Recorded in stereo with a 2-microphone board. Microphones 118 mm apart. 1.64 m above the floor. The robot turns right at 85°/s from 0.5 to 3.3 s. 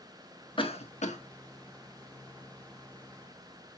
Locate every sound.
0.6 s a cough: 45° left (ahead or behind), 1.6 m; by 1.2 s 80° left, 1.6 m